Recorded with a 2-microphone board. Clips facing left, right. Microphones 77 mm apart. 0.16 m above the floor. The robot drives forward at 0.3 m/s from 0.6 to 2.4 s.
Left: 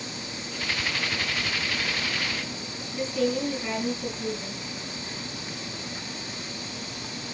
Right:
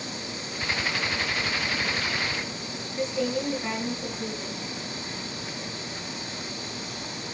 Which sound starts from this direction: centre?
A woman speaking, at 3.0 s.